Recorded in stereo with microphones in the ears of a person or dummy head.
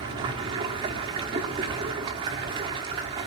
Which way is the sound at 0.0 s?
25° right (ahead or behind).